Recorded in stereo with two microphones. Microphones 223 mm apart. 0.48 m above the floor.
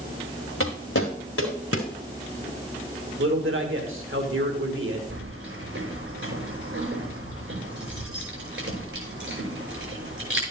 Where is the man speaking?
65° right (ahead or behind), 1.7 m.